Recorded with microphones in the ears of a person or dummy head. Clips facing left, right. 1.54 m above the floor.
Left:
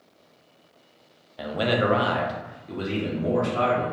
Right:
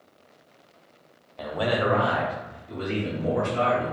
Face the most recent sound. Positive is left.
turn(degrees=80)